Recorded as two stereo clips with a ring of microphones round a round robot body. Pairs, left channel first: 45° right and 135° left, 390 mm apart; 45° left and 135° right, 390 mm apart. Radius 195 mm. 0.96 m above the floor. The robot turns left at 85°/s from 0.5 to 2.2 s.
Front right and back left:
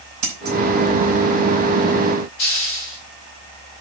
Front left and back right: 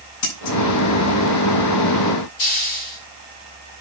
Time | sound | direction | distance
0.2 | scissors | 95° left | 5.5 m
2.4 | a hiss | 5° left | 4 m